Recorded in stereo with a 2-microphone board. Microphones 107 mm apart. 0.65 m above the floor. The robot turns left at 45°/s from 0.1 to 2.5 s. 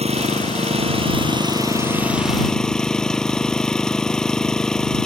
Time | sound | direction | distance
0.0 | an engine running | 80° right | ?